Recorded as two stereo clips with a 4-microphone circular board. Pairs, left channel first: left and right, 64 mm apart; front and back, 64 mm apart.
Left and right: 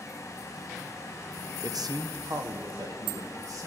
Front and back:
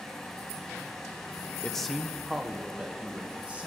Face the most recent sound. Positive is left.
turn(degrees=-110)